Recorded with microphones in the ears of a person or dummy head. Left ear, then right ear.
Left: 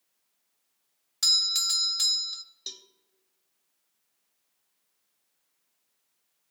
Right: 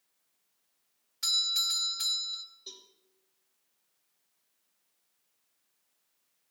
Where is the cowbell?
70° left (ahead or behind), 0.9 m.